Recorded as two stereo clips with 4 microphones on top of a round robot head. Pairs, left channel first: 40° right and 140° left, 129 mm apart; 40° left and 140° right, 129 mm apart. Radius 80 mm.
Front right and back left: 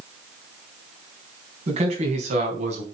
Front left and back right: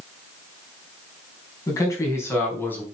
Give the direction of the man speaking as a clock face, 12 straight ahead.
9 o'clock.